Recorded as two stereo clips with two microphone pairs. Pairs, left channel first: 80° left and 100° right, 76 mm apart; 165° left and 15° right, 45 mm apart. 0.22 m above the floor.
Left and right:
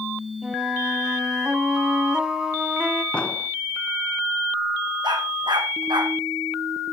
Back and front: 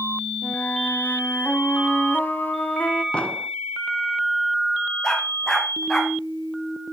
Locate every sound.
0.4 s a flute: 175° right, 1.8 m
3.1 s an explosion: 140° left, 1.6 m
5.0 s a dog barking: 115° right, 4.5 m